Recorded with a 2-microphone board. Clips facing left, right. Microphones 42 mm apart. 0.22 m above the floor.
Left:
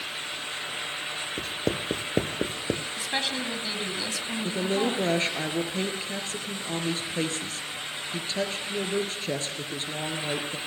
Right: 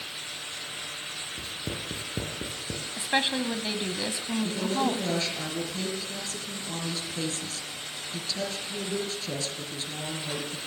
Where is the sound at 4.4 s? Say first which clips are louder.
Left 2 dB; 40° left (ahead or behind), 4 m.